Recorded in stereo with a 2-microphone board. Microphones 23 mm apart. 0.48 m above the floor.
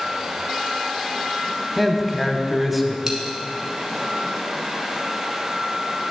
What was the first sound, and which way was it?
A man speaking, 5° right (ahead or behind).